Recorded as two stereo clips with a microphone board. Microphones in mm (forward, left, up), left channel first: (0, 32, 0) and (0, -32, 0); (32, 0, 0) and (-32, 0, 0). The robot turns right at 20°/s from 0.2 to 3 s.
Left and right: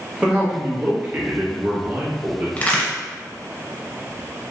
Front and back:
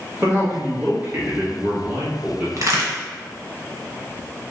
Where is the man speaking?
155° right, 1.0 m; by 2.5 s 110° right, 1.0 m.